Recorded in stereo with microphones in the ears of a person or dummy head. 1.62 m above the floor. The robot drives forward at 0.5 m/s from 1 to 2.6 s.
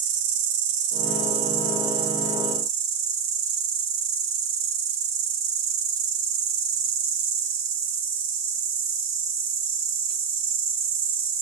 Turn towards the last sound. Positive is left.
turn(degrees=-50)  # may be behind; listen again after turning